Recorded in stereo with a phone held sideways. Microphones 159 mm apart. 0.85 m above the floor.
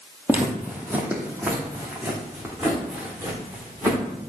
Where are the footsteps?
10° right (ahead or behind), 1.5 m; by 4.0 s 15° right (ahead or behind), 4 m.